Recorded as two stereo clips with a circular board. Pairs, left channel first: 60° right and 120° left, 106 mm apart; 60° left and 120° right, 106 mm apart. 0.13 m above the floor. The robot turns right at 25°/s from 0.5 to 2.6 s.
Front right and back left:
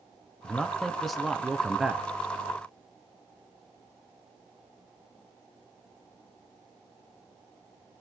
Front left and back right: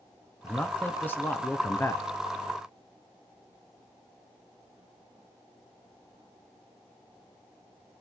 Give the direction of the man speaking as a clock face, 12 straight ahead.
12 o'clock.